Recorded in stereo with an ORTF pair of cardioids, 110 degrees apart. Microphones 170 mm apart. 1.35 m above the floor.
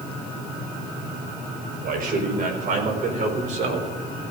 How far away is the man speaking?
About 5 m.